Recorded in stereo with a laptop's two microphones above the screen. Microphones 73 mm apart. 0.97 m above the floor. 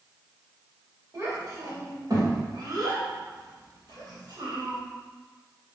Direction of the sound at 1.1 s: 50° right (ahead or behind).